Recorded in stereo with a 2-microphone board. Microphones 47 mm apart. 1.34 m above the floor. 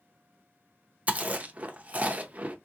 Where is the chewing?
30° right (ahead or behind), 0.6 m.